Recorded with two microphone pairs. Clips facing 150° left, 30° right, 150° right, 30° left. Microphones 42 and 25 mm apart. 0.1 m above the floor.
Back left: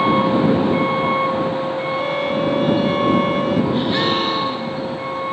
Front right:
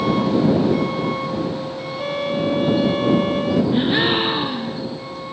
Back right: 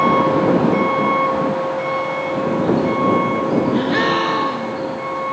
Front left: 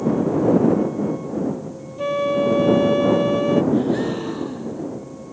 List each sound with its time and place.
0.0 s a vehicle: 145° right; by 5.3 s 155° right
2.0 s a flute: 60° left
3.7 s a gasp: 105° right